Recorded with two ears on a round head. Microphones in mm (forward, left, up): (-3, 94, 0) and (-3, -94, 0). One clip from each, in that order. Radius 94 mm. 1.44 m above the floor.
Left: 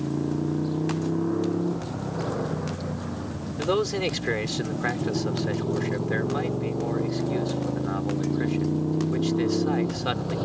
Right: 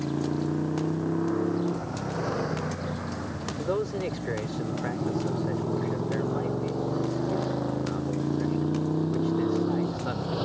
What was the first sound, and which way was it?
A motorcycle, 70° right (ahead or behind).